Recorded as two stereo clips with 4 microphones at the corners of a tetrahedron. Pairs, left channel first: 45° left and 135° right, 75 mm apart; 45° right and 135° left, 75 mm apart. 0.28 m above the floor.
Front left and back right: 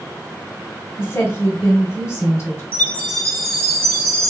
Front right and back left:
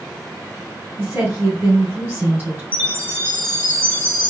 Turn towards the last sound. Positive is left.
turn(degrees=-5)